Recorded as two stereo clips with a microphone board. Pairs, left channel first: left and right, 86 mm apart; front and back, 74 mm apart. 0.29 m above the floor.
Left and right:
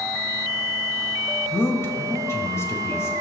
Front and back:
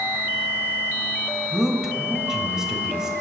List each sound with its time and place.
1.5 s a man speaking: 105° left, 1.0 m